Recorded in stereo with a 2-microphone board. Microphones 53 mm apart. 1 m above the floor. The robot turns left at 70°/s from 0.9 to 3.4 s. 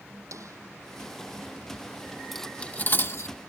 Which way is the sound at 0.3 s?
85° right.